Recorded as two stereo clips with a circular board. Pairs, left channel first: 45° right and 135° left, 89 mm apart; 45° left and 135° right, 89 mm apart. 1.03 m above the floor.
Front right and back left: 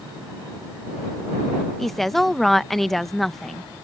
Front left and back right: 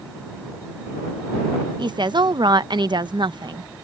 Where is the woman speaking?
130° right.